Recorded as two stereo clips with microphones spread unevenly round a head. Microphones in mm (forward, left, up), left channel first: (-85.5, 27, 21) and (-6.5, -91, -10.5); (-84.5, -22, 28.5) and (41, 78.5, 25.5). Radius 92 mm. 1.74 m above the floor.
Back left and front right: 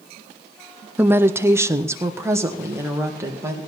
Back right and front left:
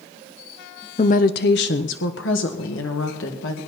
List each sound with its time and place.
1.0 s a woman speaking: 145° right, 0.5 m; by 3.6 s 130° right, 2 m